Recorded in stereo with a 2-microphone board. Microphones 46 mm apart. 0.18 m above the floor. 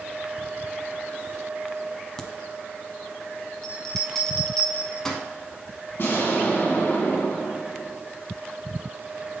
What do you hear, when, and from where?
2.2 s a crack: 10° left (ahead or behind), 0.8 m
3.6 s a bell: 10° left (ahead or behind), 0.9 m
6.0 s an explosion: 50° left (ahead or behind), 2 m